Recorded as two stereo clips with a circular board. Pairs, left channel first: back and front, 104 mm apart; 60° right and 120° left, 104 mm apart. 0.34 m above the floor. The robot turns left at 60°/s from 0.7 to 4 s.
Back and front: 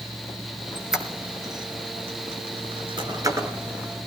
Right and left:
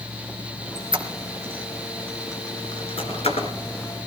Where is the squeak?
95° left, 2.5 m; by 3.5 s 70° right, 2.5 m.